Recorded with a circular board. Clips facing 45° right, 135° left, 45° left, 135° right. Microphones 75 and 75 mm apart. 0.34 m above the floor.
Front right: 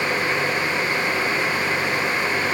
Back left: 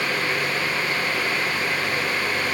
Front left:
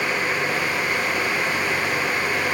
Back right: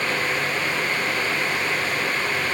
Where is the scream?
I don't hear a scream.